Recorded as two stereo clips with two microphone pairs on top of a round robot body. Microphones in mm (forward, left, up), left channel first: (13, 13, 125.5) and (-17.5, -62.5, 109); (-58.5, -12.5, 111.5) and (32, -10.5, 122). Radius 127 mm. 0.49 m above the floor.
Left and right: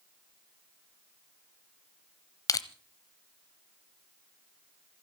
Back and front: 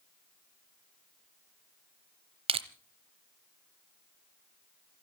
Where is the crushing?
20° left, 0.8 m.